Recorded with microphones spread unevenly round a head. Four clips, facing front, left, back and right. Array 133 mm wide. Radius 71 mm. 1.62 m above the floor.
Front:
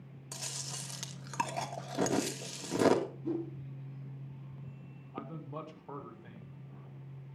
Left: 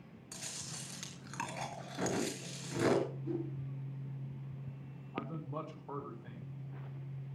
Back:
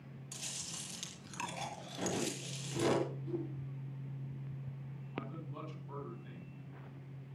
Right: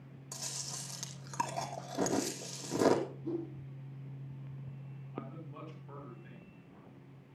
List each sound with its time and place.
0.3 s chewing: 35° right, 3 m
3.2 s a whoosh: 25° right, 4 m
5.1 s a man speaking: 40° left, 6.5 m